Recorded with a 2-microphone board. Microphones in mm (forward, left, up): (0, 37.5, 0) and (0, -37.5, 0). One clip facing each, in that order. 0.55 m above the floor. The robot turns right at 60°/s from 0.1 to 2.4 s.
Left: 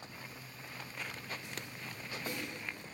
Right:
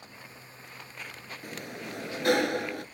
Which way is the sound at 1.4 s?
130° right.